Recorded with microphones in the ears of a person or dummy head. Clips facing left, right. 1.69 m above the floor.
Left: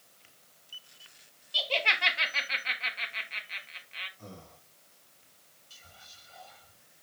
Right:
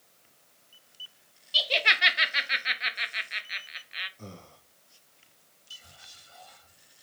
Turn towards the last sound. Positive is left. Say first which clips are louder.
# even
turn(degrees=-80)